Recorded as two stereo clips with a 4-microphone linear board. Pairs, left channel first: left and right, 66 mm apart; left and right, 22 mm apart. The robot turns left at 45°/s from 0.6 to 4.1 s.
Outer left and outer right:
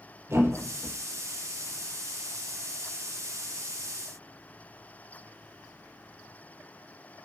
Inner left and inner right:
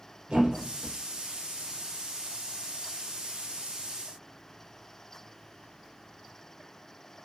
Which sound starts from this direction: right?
A thud, at 0.3 s.